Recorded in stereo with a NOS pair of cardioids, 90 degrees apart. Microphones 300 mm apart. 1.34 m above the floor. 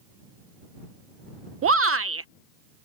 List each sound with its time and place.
1.6 s a shout: 45° right